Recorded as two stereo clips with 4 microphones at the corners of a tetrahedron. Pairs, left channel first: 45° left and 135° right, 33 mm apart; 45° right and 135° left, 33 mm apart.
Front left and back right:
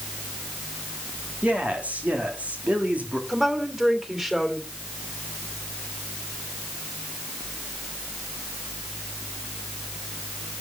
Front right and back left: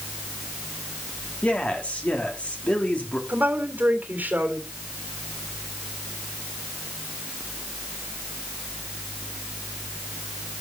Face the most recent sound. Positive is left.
turn(degrees=155)